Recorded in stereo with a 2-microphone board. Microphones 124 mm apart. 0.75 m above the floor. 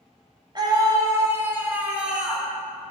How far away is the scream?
About 1.7 m.